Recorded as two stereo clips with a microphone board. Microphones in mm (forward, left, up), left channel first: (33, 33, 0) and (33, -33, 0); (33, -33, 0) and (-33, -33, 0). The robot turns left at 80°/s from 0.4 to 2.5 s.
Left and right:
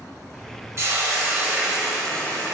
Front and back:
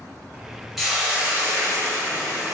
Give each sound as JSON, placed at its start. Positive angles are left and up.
{"t": 0.8, "sound": "a hiss", "azimuth_deg": -90, "distance_m": 0.6}